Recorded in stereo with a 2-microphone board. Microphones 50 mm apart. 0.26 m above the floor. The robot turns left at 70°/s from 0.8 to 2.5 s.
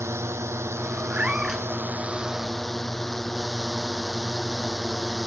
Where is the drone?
65° right; by 5.3 s 175° left.